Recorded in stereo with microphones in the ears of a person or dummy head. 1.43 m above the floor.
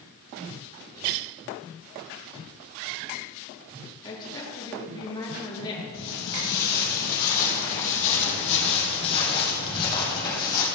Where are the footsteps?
55° left (ahead or behind), 2.5 m; by 10.7 s 20° left (ahead or behind), 4 m.